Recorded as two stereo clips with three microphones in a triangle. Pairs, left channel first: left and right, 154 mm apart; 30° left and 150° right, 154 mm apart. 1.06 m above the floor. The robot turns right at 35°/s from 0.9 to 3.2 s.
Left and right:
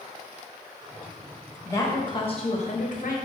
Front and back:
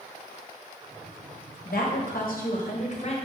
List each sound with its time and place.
1.6 s a woman speaking: 20° left, 0.8 m; by 3.1 s 70° left, 0.8 m